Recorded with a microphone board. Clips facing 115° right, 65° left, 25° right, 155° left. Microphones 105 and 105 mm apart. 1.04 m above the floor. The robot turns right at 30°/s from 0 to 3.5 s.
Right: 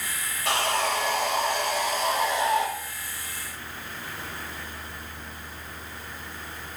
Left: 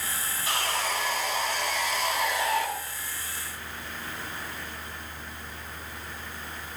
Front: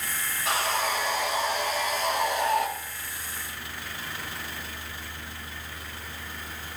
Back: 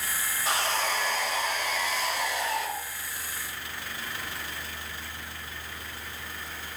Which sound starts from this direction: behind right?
Sawing, at 0.5 s.